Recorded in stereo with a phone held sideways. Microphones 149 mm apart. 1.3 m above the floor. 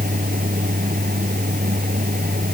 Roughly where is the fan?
Right.